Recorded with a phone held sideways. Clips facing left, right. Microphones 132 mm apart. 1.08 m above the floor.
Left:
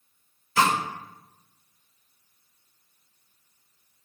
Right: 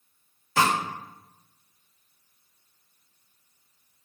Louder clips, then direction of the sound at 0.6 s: Left 1 dB; 60° right (ahead or behind).